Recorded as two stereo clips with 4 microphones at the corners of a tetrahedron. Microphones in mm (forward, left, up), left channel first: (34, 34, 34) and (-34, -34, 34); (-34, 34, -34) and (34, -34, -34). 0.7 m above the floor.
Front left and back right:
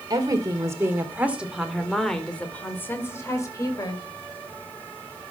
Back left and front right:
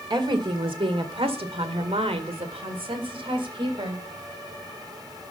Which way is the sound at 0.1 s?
85° right.